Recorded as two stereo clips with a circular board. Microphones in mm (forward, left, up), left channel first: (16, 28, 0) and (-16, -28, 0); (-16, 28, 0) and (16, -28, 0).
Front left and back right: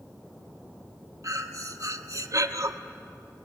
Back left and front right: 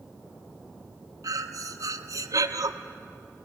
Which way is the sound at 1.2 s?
90° right.